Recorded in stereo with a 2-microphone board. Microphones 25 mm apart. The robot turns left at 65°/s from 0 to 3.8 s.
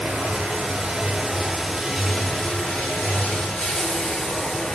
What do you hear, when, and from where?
0.0 s running water: 65° right, 9.5 m; by 4.8 s 50° left, 9.5 m